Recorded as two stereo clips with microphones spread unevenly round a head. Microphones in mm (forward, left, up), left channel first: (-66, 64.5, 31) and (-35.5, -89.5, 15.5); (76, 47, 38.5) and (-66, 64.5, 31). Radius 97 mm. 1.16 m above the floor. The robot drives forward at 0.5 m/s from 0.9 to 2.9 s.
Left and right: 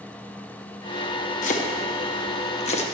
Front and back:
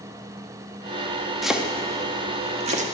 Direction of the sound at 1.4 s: 80° left.